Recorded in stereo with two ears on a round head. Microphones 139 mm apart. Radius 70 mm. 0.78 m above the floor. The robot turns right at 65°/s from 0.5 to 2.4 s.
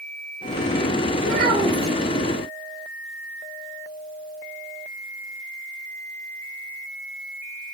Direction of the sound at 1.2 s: 65° right.